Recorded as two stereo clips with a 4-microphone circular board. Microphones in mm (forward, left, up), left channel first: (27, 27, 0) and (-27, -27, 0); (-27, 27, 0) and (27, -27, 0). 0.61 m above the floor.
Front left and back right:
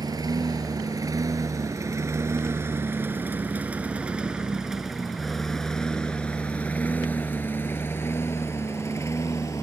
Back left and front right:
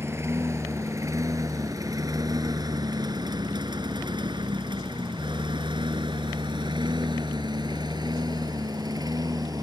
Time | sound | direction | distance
0.0 | a lawn mower | 100° right | ?